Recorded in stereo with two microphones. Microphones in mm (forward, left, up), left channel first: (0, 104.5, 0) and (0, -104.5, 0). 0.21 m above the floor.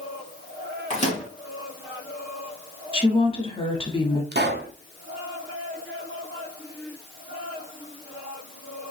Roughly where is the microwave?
Left.